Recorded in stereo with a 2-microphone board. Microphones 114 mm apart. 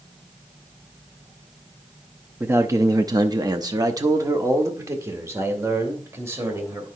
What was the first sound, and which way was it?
A man speaking, 20° right (ahead or behind).